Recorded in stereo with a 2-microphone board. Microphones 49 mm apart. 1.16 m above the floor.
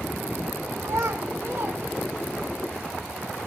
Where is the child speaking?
75° right (ahead or behind), 1.1 m; by 2.5 s 40° right (ahead or behind), 1.4 m.